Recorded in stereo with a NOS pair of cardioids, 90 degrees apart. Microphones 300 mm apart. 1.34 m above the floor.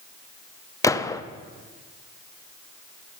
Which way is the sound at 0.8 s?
10° left.